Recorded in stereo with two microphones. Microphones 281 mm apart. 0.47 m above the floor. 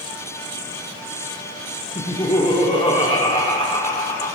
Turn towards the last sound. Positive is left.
turn(degrees=20)  # may be behind; listen again after turning